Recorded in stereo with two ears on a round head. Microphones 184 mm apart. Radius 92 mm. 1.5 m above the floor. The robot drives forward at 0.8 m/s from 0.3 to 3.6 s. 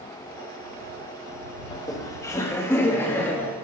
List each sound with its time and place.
1.7 s laughter: 20° left (ahead or behind), 1.7 m; by 3.5 s 10° left (ahead or behind), 3 m